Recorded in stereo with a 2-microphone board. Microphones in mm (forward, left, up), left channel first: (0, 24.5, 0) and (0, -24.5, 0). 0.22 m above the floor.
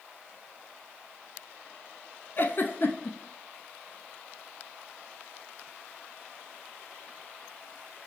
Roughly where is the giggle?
Left.